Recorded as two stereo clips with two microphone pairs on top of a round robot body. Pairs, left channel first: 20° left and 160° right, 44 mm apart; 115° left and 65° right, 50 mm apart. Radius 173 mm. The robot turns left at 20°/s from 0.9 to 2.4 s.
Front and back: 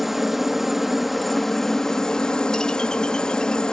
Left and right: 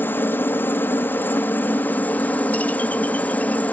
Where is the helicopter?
105° left; by 3.7 s 75° left.